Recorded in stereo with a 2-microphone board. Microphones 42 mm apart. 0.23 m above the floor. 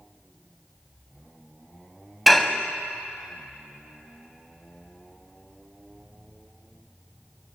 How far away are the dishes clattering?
About 0.9 m.